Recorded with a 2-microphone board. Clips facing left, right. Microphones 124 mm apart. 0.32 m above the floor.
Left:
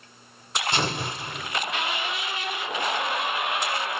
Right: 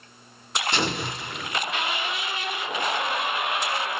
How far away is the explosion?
About 1.3 m.